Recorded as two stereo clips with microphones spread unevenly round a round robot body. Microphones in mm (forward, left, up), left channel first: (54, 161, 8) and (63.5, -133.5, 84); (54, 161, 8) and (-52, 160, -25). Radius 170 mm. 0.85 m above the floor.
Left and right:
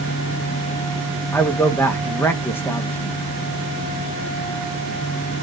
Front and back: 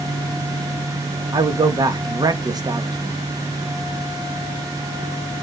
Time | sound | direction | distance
1.3 | a man speaking | 165° left | 0.8 m